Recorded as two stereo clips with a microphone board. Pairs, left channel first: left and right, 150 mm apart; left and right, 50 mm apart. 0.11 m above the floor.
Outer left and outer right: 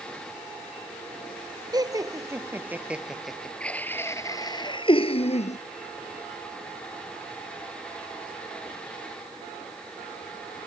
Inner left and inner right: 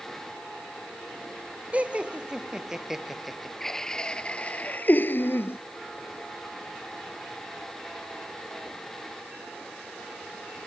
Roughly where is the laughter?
Right.